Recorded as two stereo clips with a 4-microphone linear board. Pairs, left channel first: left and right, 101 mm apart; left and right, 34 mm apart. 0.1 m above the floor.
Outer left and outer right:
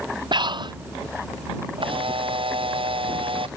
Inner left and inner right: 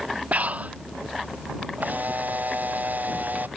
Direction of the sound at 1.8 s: 60° right (ahead or behind).